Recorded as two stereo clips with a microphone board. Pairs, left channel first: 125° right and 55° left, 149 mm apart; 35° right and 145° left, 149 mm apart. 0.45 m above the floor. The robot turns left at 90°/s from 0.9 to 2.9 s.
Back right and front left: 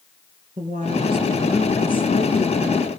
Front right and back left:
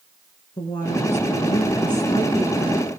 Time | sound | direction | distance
0.6 | a woman speaking | 25° left | 5 m